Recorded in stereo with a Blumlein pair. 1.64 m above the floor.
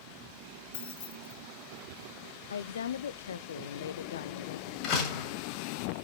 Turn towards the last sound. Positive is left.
turn(degrees=40)